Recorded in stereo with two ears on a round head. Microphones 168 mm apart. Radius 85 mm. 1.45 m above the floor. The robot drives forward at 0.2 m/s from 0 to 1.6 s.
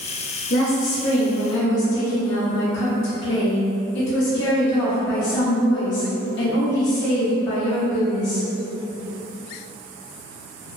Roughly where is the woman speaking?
Left.